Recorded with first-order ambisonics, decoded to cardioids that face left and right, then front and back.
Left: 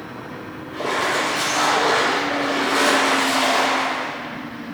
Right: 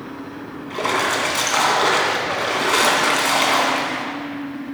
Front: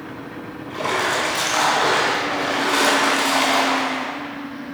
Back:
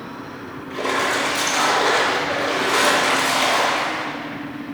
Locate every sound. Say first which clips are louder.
0.7 s a splash: right 1 dB, even; 80° right, 1.8 m